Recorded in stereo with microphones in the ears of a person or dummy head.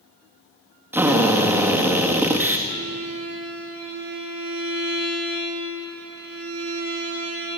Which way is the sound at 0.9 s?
10° right (ahead or behind).